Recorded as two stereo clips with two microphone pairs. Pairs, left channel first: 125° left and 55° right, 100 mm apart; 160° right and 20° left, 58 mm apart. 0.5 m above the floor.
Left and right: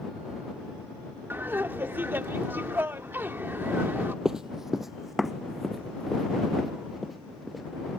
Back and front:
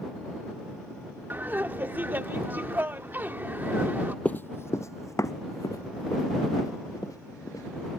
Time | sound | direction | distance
1.3 | laughter | 5° right | ?
4.2 | running footsteps | 130° right | ?